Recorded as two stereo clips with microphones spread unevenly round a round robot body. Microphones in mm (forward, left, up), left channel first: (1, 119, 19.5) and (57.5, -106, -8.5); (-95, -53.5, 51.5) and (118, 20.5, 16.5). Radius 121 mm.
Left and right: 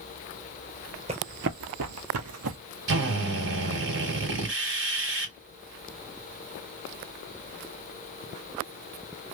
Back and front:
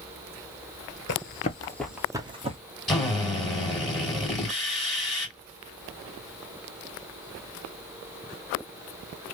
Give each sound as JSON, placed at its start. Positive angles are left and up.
{"t": 1.1, "sound": "running footsteps", "azimuth_deg": -145, "distance_m": 0.6}
{"t": 2.9, "sound": "a drill", "azimuth_deg": -65, "distance_m": 2.0}